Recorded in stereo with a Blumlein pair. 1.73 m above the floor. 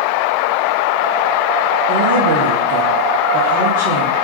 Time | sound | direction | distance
1.9 | a woman speaking | 40° right | 1.6 m